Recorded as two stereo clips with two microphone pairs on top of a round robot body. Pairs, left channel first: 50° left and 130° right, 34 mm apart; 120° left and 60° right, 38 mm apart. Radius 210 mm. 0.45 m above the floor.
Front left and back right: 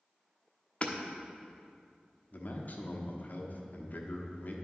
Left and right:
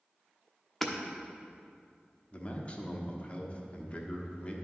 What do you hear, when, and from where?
0.8 s hammering: 40° left, 1.1 m
2.3 s a man speaking: 70° left, 1.3 m